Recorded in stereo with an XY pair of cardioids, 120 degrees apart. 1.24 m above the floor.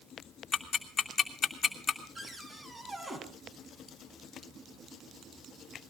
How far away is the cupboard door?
About 3.5 m.